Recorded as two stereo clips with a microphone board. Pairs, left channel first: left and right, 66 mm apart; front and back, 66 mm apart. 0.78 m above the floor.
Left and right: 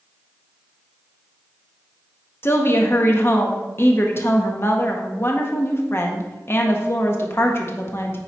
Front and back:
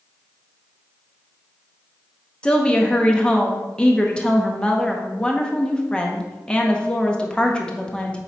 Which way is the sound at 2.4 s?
70° left.